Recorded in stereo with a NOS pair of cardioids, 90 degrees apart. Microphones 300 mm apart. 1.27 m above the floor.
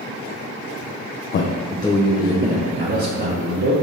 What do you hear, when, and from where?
1.3 s a man speaking: 45° left, 0.5 m; by 3.7 s 35° right, 1.3 m